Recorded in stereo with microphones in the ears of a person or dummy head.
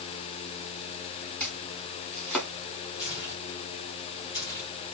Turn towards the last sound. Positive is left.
turn(degrees=20)  # may be behind; listen again after turning